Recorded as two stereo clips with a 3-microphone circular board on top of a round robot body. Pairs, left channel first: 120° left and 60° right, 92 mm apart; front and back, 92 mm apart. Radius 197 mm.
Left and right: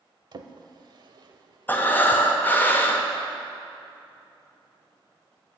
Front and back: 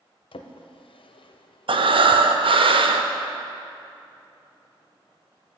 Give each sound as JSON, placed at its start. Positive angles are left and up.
{"t": 0.3, "sound": "a drawer", "azimuth_deg": -20, "distance_m": 0.5}
{"t": 1.7, "sound": "breathing", "azimuth_deg": -170, "distance_m": 0.7}